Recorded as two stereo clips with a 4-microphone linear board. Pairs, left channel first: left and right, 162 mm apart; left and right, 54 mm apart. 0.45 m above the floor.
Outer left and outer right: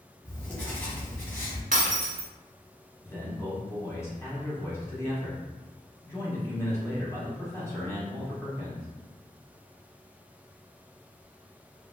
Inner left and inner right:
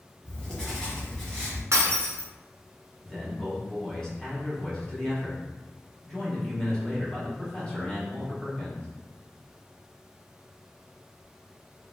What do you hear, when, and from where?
0.2 s writing: 10° left (ahead or behind), 1.1 m
1.7 s breaking glass: 70° right (ahead or behind), 0.7 m
3.0 s a man speaking: 20° left (ahead or behind), 0.9 m